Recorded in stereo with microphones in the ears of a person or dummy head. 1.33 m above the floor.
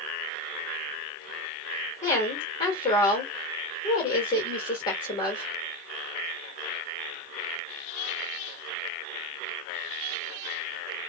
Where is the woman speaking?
25° left (ahead or behind), 1.7 m.